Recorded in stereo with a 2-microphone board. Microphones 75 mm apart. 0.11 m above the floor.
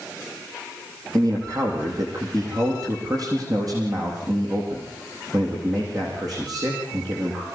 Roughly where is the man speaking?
Right.